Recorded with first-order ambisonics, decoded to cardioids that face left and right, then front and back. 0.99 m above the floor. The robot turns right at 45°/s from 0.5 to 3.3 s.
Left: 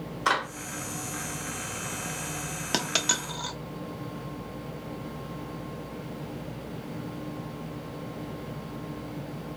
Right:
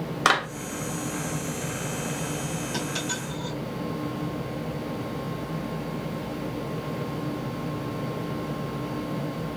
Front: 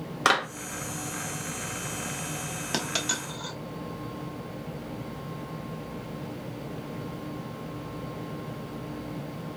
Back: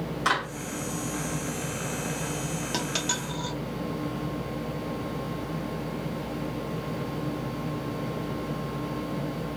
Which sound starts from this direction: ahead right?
A clap, at 0.2 s.